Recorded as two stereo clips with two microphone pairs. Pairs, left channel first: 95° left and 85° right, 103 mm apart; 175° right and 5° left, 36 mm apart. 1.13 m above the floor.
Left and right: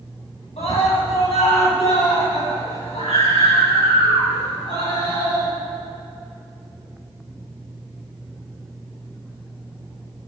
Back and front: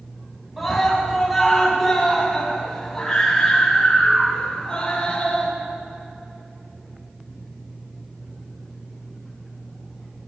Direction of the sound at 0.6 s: 90° left.